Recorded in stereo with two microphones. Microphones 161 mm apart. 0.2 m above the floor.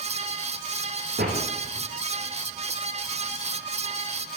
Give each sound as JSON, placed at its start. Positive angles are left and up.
{"t": 1.2, "sound": "a door slam", "side_deg": -85, "distance_m": 7.0}